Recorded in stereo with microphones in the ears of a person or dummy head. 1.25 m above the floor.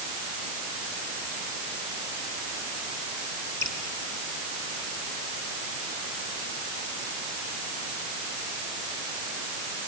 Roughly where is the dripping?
Centre.